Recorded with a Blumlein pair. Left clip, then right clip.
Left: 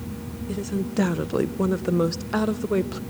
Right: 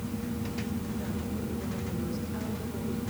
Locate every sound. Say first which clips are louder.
0.5 s a woman speaking: left 7 dB; 40° left, 1.1 m